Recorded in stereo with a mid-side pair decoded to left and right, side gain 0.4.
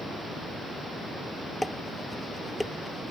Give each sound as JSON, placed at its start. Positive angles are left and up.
{"t": 1.6, "sound": "dishes clattering", "azimuth_deg": 5}